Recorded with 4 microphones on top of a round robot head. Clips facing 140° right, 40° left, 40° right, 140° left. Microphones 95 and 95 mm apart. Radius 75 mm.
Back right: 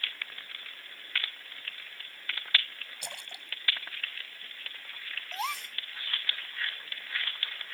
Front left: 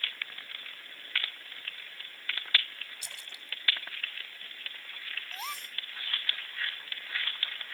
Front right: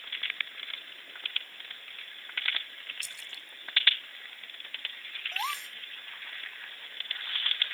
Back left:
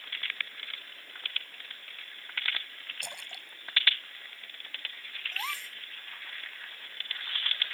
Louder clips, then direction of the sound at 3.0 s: Back right 4 dB, back left 4 dB; straight behind.